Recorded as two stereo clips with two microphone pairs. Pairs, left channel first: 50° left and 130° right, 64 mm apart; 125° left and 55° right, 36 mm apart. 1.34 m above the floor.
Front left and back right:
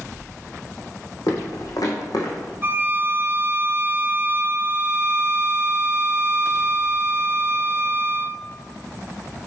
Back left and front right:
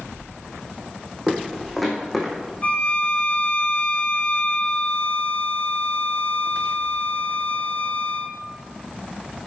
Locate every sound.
1.3 s footsteps: 30° left, 4.5 m; by 2.5 s 45° left, 3.5 m
2.6 s a violin: 175° left, 0.9 m